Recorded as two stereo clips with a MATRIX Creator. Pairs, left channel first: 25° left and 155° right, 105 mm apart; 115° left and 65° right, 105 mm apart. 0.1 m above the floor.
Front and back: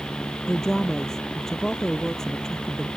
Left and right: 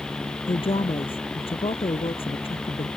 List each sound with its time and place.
0.5 s a woman speaking: 110° left